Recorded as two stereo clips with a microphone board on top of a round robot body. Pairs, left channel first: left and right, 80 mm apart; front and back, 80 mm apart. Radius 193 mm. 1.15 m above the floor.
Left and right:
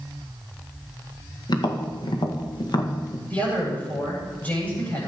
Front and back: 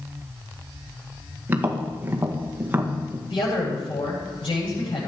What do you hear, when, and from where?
1.5 s tapping: 115° left, 1.9 m
3.3 s a man speaking: 20° left, 9 m